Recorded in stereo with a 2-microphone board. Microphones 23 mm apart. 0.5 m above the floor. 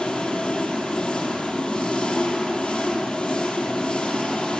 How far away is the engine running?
About 5.5 m.